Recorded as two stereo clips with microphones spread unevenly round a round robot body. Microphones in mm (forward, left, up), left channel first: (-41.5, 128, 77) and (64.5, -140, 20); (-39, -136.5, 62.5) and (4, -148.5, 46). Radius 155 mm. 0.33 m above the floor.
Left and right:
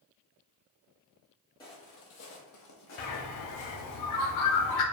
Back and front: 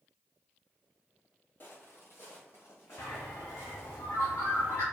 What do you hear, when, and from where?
1.6 s footsteps: straight behind, 0.6 m; by 4.0 s 135° left, 1.7 m
3.0 s a bird: 145° left, 0.6 m